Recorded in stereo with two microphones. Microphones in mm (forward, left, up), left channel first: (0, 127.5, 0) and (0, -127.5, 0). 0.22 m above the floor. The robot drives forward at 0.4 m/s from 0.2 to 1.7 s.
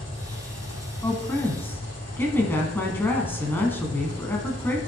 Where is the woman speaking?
10° left (ahead or behind), 1.4 m.